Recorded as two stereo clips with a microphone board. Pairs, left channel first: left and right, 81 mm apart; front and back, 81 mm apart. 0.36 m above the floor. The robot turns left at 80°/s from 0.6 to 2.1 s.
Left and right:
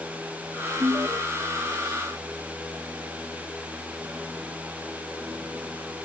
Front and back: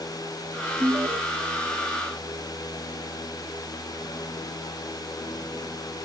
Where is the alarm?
120° right; by 1.2 s 150° right.